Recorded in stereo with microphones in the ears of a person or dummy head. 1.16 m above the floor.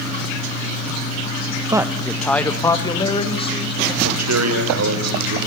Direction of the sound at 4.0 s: 85° right.